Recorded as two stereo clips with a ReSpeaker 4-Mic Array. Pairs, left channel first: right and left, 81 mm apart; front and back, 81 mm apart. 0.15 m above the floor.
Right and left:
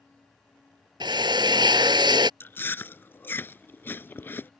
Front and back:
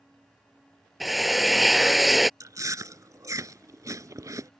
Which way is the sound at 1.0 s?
90° left.